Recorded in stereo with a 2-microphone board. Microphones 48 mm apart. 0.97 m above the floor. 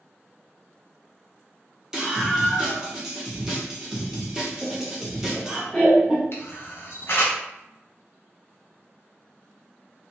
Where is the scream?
10° right (ahead or behind), 0.9 m.